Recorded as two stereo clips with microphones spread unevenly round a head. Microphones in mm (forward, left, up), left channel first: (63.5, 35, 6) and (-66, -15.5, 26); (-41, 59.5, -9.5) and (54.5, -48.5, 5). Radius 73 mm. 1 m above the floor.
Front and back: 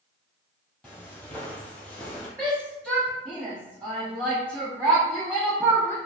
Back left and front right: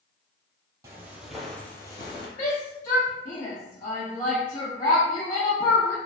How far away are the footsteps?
About 1.1 m.